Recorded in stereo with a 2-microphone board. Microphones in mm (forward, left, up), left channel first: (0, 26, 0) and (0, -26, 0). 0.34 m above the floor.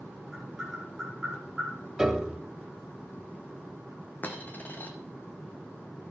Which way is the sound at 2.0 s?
10° right (ahead or behind).